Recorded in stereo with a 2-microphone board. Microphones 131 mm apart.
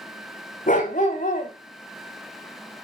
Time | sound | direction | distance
0.7 | a dog barking | 75° left (ahead or behind) | 2 m